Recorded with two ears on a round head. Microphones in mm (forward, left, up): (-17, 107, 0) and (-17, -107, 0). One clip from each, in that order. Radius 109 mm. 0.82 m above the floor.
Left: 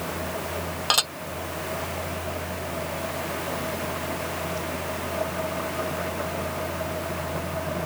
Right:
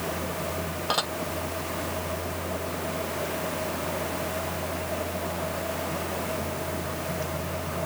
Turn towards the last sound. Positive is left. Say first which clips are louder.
# left 5 dB
turn(degrees=55)  # may be behind; listen again after turning